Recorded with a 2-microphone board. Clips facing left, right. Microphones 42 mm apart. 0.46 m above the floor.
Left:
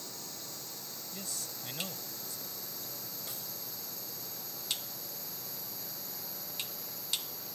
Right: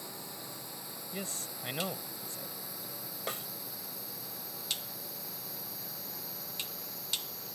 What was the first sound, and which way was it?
A drone, 20° right (ahead or behind).